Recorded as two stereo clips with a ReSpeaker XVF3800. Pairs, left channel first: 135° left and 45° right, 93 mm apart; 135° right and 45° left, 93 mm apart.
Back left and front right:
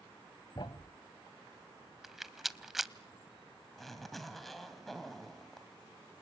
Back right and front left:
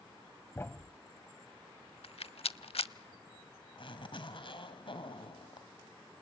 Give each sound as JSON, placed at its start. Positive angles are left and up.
{"t": 0.6, "sound": "a thud", "azimuth_deg": 165, "distance_m": 1.0}
{"t": 2.0, "sound": "a rattle", "azimuth_deg": -130, "distance_m": 0.5}
{"t": 3.8, "sound": "a zipper", "azimuth_deg": -135, "distance_m": 2.0}